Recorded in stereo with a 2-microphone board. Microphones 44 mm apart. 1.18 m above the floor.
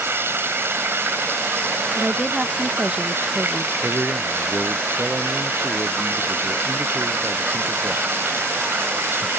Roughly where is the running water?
Right.